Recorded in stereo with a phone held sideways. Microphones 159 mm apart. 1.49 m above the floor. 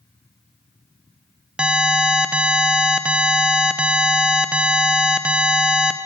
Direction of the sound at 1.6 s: 5° right (ahead or behind).